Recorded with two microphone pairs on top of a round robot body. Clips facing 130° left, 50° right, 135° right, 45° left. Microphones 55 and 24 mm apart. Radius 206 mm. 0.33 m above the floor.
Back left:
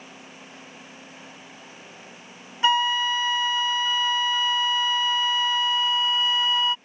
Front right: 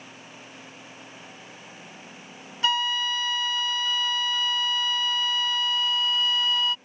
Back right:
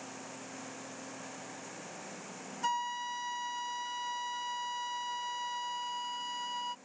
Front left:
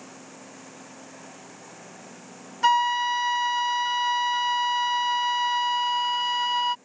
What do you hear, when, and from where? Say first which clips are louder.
2.6 s a flute: back left 4 dB, front left 14 dB; 65° left